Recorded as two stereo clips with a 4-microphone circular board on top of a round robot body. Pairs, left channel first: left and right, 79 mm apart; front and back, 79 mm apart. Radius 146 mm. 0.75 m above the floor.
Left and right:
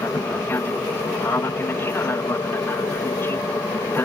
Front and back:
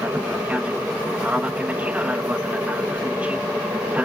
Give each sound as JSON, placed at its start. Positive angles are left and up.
{"t": 0.0, "sound": "an aircraft", "azimuth_deg": 120}